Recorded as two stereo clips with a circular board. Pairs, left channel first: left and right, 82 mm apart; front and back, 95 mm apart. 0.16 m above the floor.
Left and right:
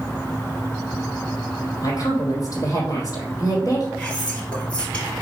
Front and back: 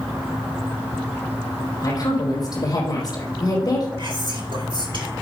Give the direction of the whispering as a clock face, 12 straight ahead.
7 o'clock.